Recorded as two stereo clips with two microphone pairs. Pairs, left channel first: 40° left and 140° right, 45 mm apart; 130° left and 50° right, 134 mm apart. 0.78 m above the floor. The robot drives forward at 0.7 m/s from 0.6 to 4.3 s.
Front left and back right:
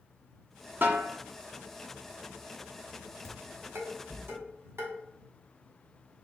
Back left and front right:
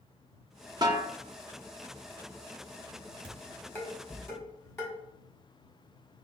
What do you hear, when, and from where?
0.8 s a snare drum: 105° right, 0.9 m; by 1.1 s 120° right, 1.0 m
3.2 s dishes clattering: 150° right, 1.4 m; by 4.9 s 160° right, 2 m